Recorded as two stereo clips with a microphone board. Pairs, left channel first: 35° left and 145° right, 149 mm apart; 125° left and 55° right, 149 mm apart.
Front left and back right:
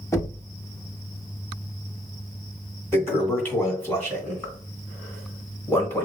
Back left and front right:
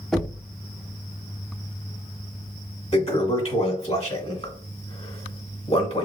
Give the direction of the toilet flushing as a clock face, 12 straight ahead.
9 o'clock.